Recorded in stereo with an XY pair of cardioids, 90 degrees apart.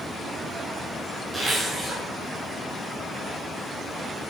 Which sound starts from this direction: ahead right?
A zipper, at 1.3 s.